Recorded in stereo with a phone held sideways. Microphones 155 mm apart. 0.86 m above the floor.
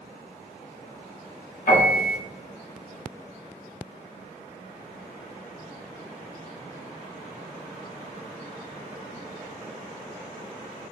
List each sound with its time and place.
1.7 s a piano: 60° left (ahead or behind), 2 m